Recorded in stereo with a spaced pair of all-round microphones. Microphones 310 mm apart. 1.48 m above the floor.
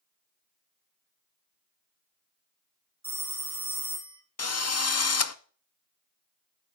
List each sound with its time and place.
3.0 s a phone ringing: 70° right (ahead or behind), 3 m
4.4 s a drill: 55° left (ahead or behind), 0.5 m